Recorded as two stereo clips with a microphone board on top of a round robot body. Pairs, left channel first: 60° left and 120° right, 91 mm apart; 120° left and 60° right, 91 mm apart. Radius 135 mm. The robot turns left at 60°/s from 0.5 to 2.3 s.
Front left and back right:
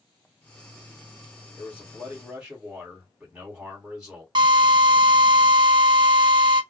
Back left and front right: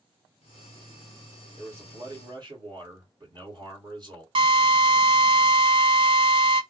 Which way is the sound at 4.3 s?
85° right.